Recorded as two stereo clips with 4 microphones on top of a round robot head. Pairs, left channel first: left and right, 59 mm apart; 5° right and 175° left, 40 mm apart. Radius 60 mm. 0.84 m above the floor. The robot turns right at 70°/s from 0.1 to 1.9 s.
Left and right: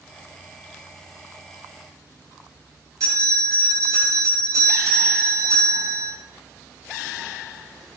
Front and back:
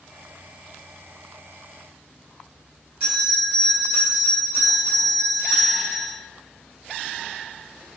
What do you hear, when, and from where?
3.0 s a bell: 125° right, 2.5 m